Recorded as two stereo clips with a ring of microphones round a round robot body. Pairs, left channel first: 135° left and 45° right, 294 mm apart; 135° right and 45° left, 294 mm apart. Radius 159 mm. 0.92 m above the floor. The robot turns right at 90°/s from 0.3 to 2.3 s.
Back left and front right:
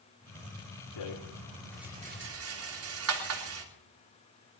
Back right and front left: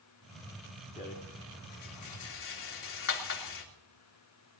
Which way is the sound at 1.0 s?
150° left.